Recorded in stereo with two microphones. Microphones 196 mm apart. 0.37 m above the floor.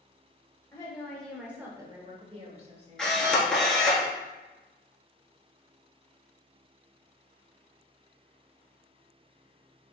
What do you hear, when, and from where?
0.7 s a woman speaking: 15° left (ahead or behind), 1.2 m; by 3.2 s 35° right (ahead or behind), 1.6 m
3.0 s a camera shutter: 5° left (ahead or behind), 1.2 m